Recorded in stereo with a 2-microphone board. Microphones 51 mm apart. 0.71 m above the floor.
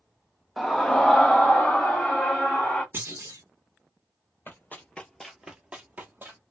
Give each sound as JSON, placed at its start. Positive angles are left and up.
{"t": 0.6, "sound": "a scream", "side_deg": 0, "distance_m": 0.6}
{"t": 2.9, "sound": "a clunk", "side_deg": -50, "distance_m": 1.1}
{"t": 4.5, "sound": "running footsteps", "side_deg": 40, "distance_m": 0.9}